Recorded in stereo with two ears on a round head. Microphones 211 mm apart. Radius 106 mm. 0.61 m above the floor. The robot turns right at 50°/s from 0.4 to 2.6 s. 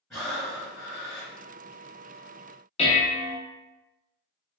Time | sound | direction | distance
0.1 | breathing | 5° left | 1.5 m
2.8 | dishes clattering | 25° left (ahead or behind) | 0.5 m